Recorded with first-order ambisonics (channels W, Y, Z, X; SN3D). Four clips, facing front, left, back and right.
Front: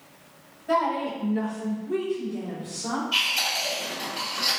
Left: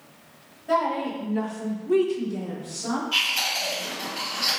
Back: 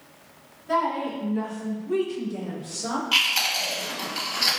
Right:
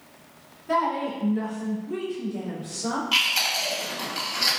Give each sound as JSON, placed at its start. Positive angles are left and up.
{"t": 0.7, "sound": "a woman speaking", "azimuth_deg": 55, "distance_m": 1.4}
{"t": 3.1, "sound": "chewing", "azimuth_deg": -150, "distance_m": 1.1}